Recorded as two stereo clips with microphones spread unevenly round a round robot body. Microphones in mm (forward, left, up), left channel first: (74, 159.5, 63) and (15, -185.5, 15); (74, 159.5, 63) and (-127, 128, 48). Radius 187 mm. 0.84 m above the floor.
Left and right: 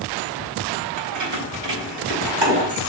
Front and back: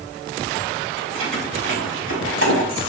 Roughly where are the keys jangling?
Behind right.